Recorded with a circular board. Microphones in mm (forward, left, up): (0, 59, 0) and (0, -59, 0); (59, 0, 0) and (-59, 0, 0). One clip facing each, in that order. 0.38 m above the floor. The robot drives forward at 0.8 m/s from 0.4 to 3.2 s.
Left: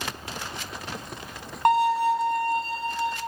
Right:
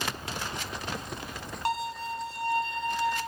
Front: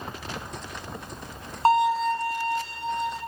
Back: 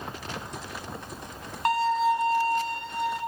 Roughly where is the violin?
Ahead left.